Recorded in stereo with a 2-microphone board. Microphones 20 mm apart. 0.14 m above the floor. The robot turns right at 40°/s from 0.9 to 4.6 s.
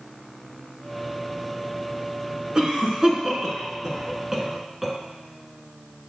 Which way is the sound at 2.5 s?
35° right (ahead or behind).